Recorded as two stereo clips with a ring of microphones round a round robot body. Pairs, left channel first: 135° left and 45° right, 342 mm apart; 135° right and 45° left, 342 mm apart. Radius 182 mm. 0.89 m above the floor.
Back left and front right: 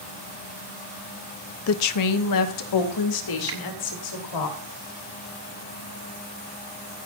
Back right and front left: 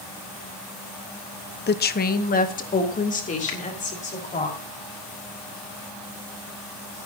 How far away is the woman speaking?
About 0.9 m.